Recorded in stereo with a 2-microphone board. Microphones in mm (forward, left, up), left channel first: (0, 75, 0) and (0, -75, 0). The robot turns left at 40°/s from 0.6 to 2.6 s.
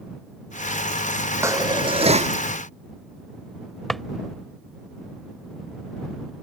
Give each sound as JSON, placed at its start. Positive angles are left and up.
{"t": 1.4, "sound": "dishes clattering", "azimuth_deg": -20}
{"t": 3.9, "sound": "a drawer", "side_deg": 0}